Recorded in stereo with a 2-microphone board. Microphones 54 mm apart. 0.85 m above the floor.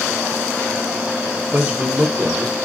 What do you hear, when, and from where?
1.5 s a man speaking: 25° right (ahead or behind), 1.0 m; by 2.5 s 45° right (ahead or behind), 1.3 m